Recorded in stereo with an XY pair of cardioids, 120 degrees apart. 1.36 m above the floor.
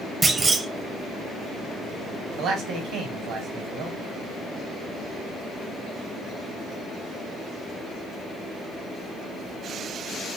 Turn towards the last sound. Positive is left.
turn(degrees=-70)